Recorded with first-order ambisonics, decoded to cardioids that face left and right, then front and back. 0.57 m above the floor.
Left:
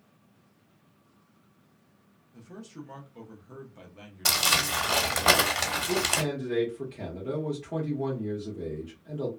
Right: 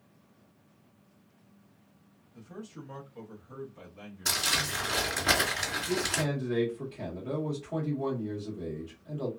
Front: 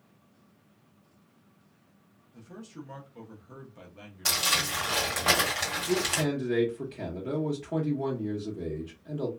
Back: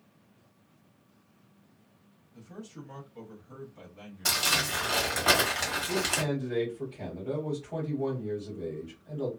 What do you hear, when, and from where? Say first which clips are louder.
2.3 s a man speaking: even, even; 60° left, 0.8 m
4.2 s crumpling: left 4 dB, even; 90° left, 1.3 m
5.9 s a man speaking: left 3 dB, front 1 dB; 25° left, 0.9 m